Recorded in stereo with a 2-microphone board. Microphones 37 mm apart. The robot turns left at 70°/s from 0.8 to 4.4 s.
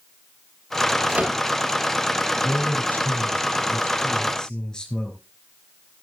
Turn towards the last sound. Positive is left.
turn(degrees=20)